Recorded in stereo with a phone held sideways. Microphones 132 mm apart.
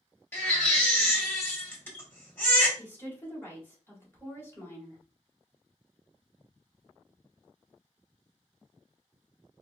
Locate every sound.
0.3 s a baby crying: 15° left (ahead or behind), 1.2 m
2.8 s a woman speaking: 15° left (ahead or behind), 2.0 m